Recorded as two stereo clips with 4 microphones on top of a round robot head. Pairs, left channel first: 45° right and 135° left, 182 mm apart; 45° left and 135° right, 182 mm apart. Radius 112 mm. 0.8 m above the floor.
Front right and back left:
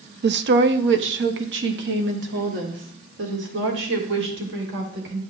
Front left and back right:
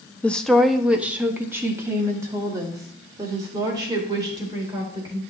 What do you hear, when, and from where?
0.2 s a woman speaking: 125° left, 0.6 m; by 5.2 s 155° left, 3 m